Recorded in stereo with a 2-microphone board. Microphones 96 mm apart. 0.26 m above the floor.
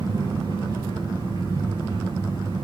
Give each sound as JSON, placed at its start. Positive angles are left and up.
{"t": 0.0, "sound": "an engine running", "side_deg": -40, "distance_m": 6.5}